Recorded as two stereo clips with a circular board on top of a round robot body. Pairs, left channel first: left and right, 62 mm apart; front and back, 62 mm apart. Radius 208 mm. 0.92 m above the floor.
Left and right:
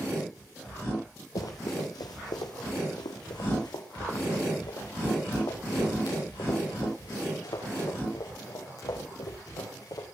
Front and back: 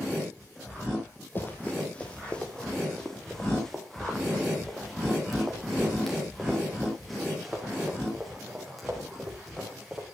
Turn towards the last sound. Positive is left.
turn(degrees=95)